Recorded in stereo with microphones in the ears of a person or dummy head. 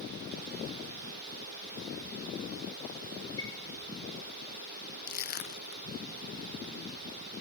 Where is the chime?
25° left (ahead or behind), 5 m.